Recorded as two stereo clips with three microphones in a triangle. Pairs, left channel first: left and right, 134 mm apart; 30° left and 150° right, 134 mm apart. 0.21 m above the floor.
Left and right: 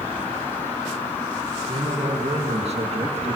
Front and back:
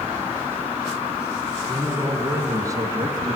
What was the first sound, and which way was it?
A man speaking, 80° right.